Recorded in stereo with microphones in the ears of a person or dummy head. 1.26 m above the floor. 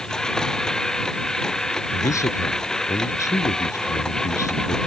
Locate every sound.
0.0 s a machine running: 5° left (ahead or behind)
1.9 s a man speaking: 15° left (ahead or behind)